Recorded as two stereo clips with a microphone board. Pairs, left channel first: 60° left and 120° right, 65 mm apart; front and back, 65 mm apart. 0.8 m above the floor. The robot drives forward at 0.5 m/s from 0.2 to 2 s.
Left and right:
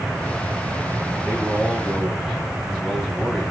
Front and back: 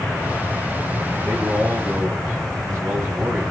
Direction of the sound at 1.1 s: 135° left.